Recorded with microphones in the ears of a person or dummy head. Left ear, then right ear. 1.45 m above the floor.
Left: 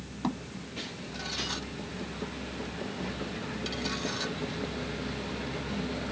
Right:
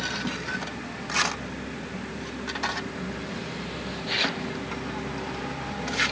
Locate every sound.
0.2 s a thud: 60° left (ahead or behind)